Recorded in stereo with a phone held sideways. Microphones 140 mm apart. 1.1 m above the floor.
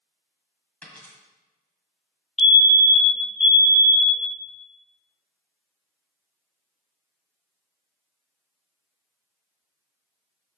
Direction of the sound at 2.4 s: Centre (ahead or behind).